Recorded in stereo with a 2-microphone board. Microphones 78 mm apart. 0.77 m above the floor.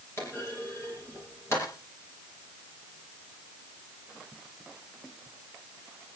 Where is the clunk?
35° left (ahead or behind), 8 m.